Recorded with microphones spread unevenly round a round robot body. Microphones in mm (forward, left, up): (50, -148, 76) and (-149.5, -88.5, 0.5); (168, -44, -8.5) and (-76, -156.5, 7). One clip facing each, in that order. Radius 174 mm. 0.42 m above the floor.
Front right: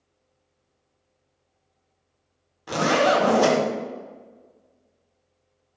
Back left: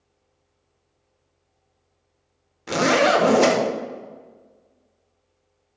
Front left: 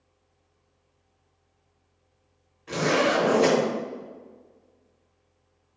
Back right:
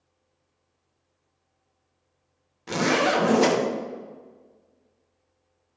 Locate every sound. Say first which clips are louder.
2.7 s a zipper: back left 2 dB, even; 165° right, 0.7 m